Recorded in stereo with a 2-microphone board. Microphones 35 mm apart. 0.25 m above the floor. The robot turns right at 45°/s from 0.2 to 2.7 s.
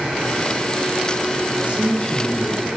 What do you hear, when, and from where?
1.6 s a man speaking: 150° right, 2.5 m; by 2.7 s 105° right, 2.5 m